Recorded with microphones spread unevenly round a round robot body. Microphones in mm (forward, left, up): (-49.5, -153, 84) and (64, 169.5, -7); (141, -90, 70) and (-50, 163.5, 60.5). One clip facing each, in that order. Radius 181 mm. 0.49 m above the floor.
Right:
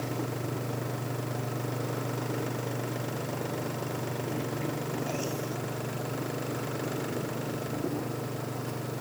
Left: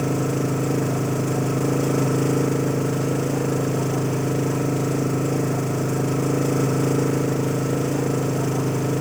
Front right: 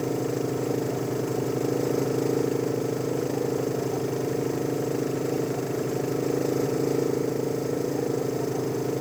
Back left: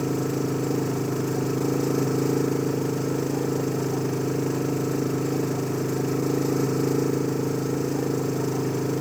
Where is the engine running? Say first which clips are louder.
Left 12 dB, back left 1 dB; 60° left.